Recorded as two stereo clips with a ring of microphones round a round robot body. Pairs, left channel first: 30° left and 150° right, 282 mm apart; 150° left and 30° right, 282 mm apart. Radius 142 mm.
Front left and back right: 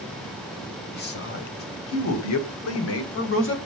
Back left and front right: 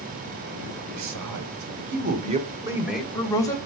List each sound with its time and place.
0.9 s a man speaking: 20° right, 2.5 m; by 3.6 s 75° left, 2.5 m